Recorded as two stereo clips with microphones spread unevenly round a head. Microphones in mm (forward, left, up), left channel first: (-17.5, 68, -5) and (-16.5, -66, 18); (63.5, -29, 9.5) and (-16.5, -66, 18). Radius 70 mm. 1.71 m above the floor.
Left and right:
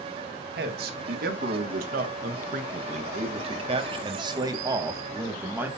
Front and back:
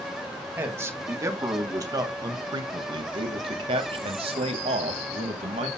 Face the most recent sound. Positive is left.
turn(degrees=-165)